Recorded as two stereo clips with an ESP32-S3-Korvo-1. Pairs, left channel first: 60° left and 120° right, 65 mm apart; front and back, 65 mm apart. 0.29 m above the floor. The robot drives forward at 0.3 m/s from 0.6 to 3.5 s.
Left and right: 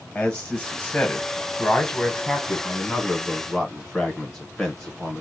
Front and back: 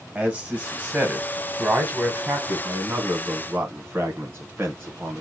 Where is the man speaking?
130° left, 1.7 m; by 5.2 s 150° left, 2.5 m.